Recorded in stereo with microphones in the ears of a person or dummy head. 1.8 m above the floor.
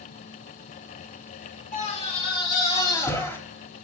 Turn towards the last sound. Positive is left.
turn(degrees=15)  # may be behind; listen again after turning